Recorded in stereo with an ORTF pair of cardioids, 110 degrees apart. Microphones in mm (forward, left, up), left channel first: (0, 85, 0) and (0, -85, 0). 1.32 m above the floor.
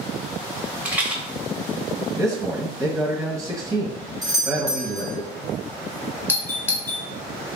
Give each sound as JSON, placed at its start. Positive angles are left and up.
{"t": 0.8, "sound": "a rattle", "azimuth_deg": -10, "distance_m": 0.8}
{"t": 2.2, "sound": "a man speaking", "azimuth_deg": -20, "distance_m": 1.3}
{"t": 4.2, "sound": "a doorbell", "azimuth_deg": -25, "distance_m": 0.9}
{"t": 6.3, "sound": "a doorbell", "azimuth_deg": 10, "distance_m": 0.8}